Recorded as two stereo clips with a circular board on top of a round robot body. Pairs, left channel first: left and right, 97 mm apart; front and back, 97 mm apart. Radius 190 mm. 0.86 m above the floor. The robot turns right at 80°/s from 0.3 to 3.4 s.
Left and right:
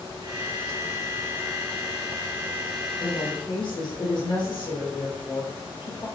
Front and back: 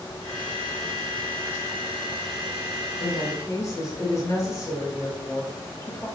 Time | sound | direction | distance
3.0 | a woman speaking | 25° left | 3 m